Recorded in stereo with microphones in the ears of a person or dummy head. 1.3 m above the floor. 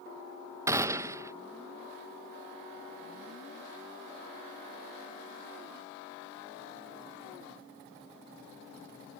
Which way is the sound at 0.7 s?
15° right (ahead or behind).